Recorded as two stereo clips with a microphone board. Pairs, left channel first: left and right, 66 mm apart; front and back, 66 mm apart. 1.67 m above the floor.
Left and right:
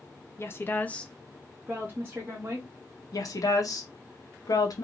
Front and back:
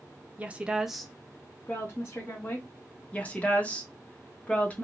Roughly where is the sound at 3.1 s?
Ahead left.